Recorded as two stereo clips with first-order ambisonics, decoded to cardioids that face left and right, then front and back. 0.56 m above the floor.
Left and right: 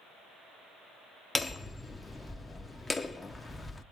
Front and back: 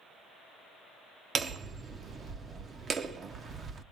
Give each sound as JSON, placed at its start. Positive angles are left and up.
{"t": 1.4, "sound": "hammering", "azimuth_deg": 160, "distance_m": 0.5}